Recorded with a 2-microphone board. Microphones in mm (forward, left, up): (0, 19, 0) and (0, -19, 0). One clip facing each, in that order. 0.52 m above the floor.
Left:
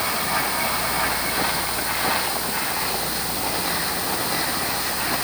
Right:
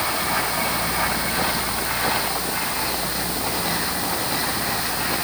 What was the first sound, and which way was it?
Only background noise.